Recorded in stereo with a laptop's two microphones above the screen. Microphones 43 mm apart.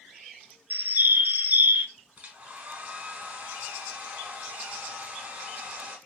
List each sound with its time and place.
0.7 s a bird: 45° right (ahead or behind), 0.6 m
2.2 s a hair dryer: 30° right (ahead or behind), 1.1 m